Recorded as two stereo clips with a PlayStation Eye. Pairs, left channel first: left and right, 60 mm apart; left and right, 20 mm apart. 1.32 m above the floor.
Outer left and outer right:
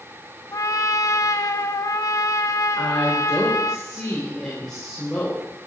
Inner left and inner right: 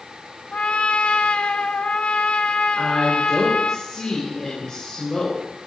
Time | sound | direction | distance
0.5 | a trumpet | 70° left (ahead or behind) | 0.9 m
2.8 | a woman speaking | 10° left (ahead or behind) | 5.5 m